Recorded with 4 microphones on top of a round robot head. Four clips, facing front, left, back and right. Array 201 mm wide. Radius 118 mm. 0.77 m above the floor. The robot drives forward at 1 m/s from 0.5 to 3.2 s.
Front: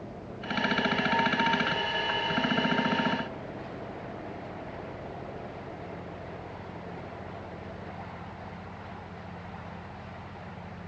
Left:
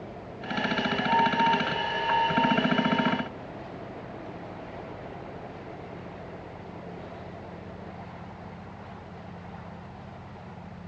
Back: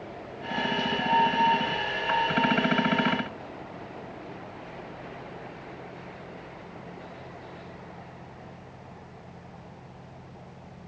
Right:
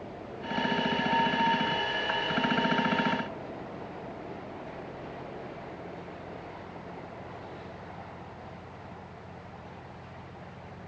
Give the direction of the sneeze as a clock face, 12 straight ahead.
I don't hear a sneeze.